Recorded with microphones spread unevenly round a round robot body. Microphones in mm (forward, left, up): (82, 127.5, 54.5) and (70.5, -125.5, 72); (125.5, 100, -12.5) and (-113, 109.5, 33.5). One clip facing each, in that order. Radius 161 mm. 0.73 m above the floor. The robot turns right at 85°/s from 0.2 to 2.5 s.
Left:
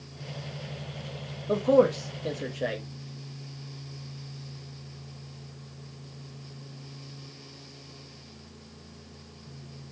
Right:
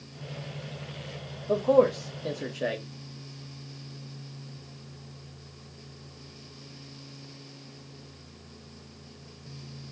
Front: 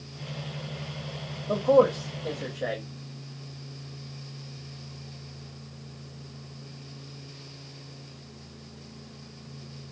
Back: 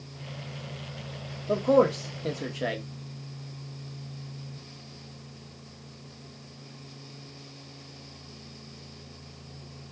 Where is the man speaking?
95° left, 0.8 m; by 2.8 s straight behind, 0.8 m.